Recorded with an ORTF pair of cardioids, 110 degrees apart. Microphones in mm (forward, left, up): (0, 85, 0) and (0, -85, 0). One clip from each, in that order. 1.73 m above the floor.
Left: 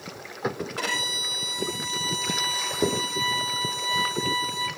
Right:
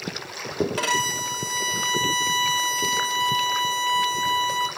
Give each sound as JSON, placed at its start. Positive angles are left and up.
{"t": 0.8, "sound": "a violin", "azimuth_deg": -50, "distance_m": 5.5}